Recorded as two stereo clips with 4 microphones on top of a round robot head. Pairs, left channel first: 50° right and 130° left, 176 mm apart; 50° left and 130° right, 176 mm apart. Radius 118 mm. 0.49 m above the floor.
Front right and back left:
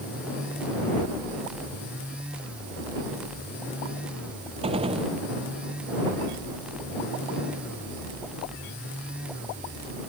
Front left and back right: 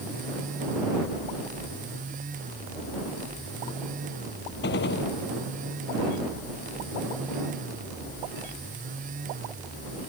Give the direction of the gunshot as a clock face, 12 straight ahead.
10 o'clock.